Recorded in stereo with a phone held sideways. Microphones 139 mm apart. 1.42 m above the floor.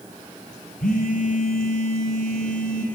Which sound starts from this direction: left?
A phone buzzing, at 0.8 s.